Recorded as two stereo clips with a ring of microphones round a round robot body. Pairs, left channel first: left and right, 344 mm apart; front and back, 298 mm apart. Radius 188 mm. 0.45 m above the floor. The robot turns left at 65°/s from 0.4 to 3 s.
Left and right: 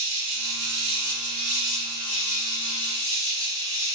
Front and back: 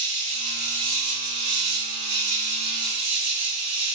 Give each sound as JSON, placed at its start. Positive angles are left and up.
{"t": 0.0, "sound": "an insect", "azimuth_deg": -95, "distance_m": 1.6}